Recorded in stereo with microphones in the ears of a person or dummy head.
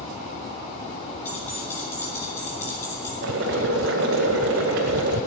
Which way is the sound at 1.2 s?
20° left (ahead or behind).